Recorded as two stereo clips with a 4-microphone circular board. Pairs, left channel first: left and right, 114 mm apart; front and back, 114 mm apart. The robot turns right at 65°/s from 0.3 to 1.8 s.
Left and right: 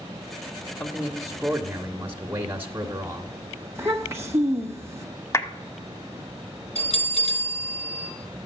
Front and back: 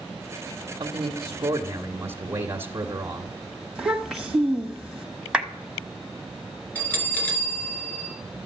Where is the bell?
75° left, 3 m.